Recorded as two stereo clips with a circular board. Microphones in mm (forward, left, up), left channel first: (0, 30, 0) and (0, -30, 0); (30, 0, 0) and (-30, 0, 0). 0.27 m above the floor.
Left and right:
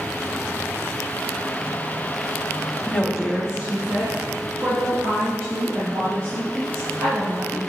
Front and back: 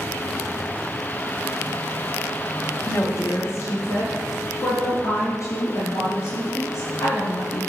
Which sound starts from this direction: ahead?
A woman speaking, at 2.9 s.